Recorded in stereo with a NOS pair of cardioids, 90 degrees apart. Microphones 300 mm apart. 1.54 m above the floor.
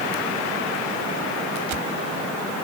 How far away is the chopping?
I don't hear chopping.